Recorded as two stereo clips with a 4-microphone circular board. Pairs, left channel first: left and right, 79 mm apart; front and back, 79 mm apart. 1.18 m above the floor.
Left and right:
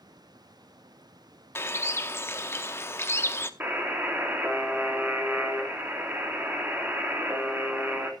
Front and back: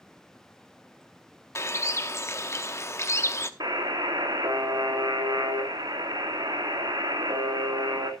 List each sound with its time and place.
1.6 s a bird: 40° left, 0.9 m
3.6 s a buzzer: 155° right, 2.5 m